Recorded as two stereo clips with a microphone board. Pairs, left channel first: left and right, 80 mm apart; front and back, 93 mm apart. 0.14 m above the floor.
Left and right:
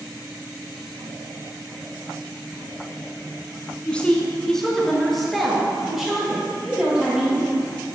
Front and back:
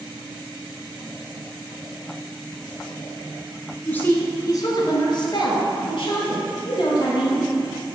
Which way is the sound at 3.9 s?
45° left.